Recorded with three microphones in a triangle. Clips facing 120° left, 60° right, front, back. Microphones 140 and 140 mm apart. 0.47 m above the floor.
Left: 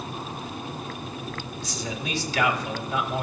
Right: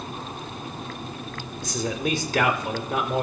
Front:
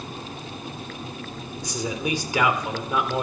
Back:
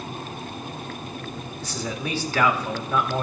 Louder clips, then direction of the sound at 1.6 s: Right 8 dB, front 3 dB; 70° right.